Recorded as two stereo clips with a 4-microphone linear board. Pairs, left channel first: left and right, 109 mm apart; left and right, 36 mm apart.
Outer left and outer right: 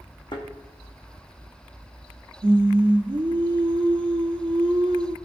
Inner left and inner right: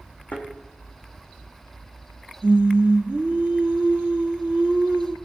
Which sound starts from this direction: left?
A thud, at 0.3 s.